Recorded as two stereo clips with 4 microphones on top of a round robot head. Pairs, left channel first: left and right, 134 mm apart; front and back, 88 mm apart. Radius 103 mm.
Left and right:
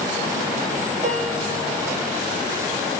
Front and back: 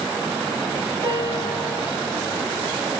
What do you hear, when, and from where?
1.0 s a piano: 135° right, 1.5 m